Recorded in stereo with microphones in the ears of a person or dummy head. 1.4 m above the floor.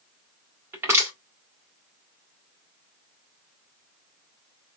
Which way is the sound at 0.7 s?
10° right (ahead or behind).